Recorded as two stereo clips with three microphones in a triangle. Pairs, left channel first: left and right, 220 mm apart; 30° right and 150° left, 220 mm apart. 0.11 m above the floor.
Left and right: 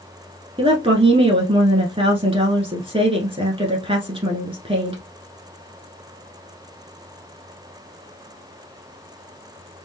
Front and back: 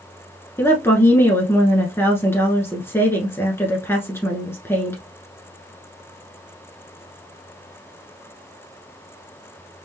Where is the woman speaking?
95° right, 1.1 m.